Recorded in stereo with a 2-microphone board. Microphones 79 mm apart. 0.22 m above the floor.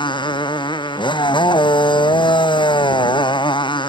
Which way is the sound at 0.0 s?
80° left.